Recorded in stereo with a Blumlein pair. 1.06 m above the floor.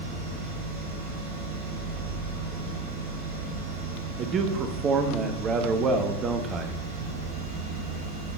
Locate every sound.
0.0 s a machine running: 55° right, 4 m
4.2 s a man speaking: 25° right, 1.0 m